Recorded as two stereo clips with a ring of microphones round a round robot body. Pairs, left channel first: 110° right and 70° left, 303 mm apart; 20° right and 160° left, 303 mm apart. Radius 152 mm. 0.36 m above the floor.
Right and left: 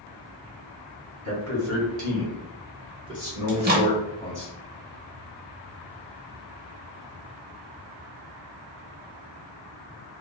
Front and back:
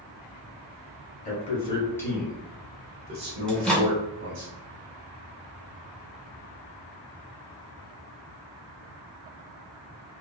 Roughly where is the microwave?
Ahead left.